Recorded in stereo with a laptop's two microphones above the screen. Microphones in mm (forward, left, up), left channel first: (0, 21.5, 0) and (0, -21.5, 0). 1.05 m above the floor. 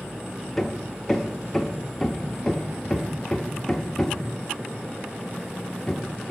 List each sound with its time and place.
0.6 s hammering: 10° left (ahead or behind), 1.0 m